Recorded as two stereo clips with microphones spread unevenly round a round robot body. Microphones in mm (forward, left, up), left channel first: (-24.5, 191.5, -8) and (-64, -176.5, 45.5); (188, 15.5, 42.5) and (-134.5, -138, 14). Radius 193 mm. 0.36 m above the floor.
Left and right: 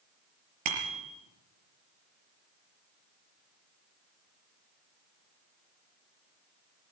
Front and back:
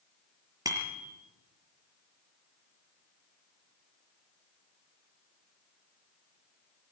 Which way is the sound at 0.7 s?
75° right.